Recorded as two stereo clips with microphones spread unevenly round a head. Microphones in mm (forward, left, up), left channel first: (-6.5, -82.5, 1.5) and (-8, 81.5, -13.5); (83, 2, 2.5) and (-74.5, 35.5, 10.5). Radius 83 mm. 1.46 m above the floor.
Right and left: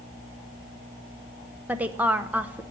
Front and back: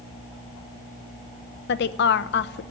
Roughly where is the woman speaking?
Ahead.